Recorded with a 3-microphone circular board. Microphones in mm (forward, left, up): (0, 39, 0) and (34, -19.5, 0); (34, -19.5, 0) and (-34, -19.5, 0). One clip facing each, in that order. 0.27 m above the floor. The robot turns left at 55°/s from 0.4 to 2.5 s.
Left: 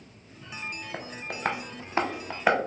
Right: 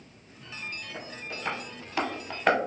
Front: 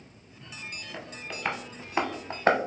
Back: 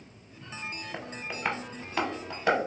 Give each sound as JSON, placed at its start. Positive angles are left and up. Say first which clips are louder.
{"t": 0.9, "sound": "tapping", "louder": "left 3 dB, back 2 dB", "azimuth_deg": 120, "distance_m": 0.6}